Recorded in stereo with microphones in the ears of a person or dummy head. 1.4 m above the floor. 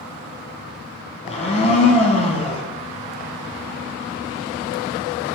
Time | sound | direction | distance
1.2 | a blender | 30° left (ahead or behind) | 1.4 m